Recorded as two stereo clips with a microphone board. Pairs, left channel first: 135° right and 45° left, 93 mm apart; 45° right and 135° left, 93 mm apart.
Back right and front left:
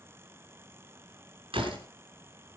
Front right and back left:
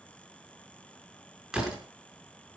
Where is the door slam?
50° left, 4.5 m.